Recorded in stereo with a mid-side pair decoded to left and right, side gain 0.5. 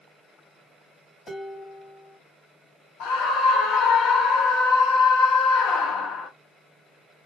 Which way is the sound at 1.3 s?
25° left.